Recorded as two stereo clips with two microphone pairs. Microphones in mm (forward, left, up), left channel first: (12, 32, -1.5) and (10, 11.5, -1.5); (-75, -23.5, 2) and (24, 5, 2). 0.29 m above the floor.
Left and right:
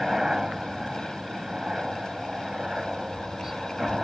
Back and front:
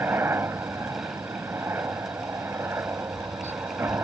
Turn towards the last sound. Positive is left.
turn(degrees=-40)